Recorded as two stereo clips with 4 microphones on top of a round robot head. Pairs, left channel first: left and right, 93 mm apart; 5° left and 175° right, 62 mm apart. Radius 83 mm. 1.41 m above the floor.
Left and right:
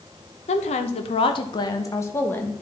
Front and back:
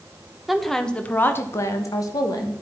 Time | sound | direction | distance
0.5 | a woman speaking | 95° left | 1.0 m